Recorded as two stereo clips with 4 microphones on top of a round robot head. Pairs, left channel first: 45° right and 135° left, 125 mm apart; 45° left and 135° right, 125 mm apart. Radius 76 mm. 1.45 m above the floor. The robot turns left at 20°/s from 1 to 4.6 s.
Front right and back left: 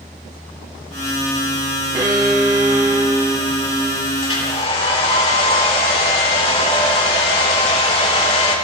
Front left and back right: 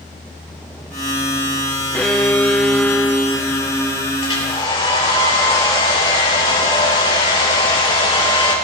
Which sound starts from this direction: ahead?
A hair dryer, at 4.2 s.